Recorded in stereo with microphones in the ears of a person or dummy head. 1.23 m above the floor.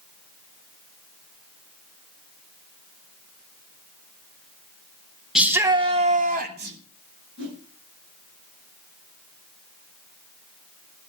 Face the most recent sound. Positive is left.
turn(degrees=-70)  # may be behind; listen again after turning